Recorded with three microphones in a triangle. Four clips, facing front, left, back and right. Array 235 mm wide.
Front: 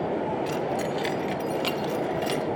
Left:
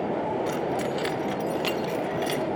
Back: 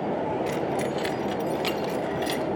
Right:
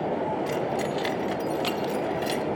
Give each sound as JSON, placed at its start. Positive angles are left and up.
{"t": 0.5, "sound": "keys jangling", "azimuth_deg": 105, "distance_m": 1.3}